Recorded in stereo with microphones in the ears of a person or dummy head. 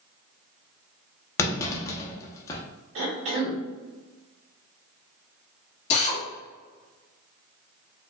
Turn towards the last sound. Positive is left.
turn(degrees=40)  # may be behind; listen again after turning